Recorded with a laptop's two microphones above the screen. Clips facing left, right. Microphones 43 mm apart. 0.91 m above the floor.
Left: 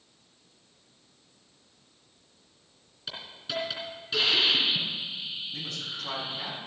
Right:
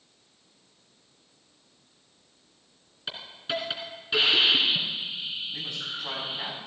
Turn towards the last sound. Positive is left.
turn(degrees=-15)  # may be behind; listen again after turning